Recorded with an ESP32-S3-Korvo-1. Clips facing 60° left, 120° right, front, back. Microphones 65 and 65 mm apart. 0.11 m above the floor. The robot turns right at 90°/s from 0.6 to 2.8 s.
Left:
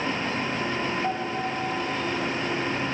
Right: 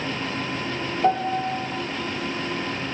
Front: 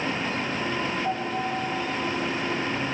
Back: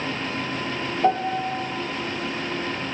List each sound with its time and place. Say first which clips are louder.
1.0 s a piano: right 6 dB, back 6 dB; 175° right, 1.9 m; by 1.6 s 125° right, 1.9 m